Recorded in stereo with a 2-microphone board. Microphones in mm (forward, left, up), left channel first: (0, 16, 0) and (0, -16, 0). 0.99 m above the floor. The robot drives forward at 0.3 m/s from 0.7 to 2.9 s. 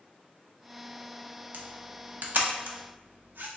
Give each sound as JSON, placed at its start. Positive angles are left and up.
{"t": 1.5, "sound": "a camera shutter", "side_deg": -65, "distance_m": 0.7}